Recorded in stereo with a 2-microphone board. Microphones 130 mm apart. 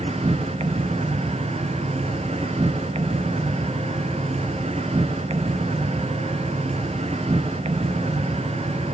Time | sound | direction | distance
0.0 | an insect | 60° right (ahead or behind) | 1.4 m